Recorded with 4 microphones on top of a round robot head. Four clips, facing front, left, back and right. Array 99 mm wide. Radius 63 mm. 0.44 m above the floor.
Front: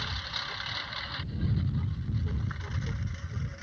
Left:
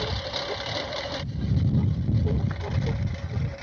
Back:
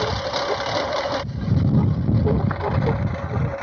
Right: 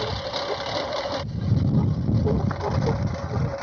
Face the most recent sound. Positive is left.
turn(degrees=-145)